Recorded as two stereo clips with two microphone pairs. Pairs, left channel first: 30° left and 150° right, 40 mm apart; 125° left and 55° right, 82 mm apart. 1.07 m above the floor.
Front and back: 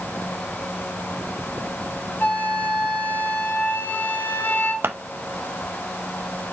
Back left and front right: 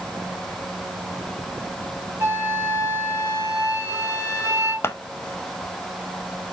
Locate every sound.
2.2 s a flute: 5° left, 3 m
4.8 s scissors: 175° right, 0.7 m